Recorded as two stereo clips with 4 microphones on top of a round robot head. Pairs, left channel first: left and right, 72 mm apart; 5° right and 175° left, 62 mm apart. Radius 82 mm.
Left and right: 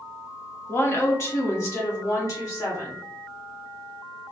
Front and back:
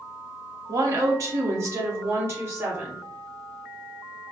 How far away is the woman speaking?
About 1.2 m.